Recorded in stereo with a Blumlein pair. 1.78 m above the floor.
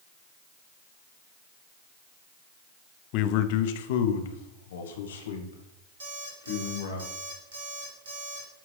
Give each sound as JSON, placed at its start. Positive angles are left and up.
{"t": 3.1, "sound": "a man speaking", "azimuth_deg": 40, "distance_m": 0.7}
{"t": 6.0, "sound": "an alarm clock", "azimuth_deg": -65, "distance_m": 2.5}